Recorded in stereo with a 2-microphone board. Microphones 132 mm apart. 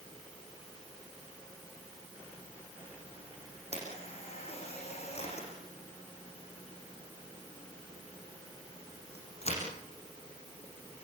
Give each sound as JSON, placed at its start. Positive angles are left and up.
{"t": 3.7, "sound": "a camera shutter", "side_deg": 50, "distance_m": 9.0}